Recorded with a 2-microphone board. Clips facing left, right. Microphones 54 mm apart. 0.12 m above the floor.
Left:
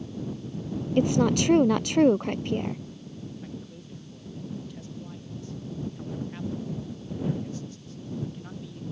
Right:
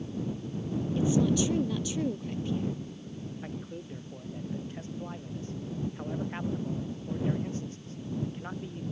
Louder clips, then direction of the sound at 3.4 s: Right 1 dB; 35° right (ahead or behind).